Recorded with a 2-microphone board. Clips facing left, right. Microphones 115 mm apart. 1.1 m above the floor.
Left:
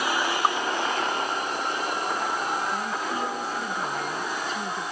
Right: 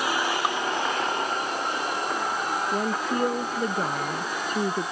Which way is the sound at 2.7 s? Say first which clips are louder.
Right 3 dB; 55° right (ahead or behind).